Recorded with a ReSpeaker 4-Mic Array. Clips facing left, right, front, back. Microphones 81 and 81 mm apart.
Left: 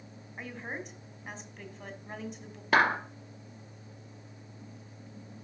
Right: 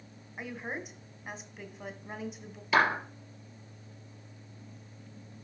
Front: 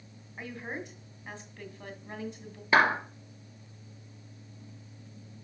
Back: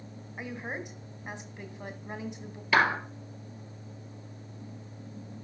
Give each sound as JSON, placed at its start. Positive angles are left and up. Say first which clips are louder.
{"t": 0.4, "sound": "a woman speaking", "louder": "right 1 dB, back 1 dB", "azimuth_deg": -165, "distance_m": 1.6}
{"t": 2.7, "sound": "a clap", "louder": "left 1 dB, front 1 dB", "azimuth_deg": 60, "distance_m": 3.0}